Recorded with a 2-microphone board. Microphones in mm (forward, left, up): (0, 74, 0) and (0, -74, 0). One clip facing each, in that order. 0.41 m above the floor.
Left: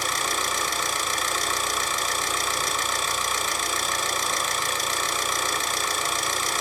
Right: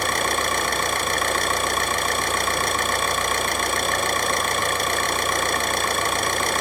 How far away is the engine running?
About 0.9 m.